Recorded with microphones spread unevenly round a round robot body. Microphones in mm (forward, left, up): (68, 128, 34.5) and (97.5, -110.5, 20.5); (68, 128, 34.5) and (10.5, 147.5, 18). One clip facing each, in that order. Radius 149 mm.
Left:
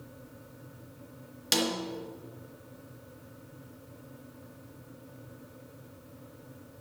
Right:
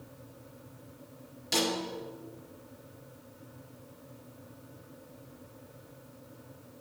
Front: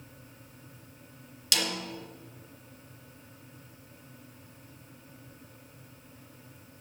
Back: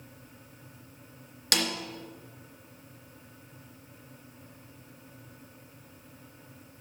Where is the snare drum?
125° left, 3 m.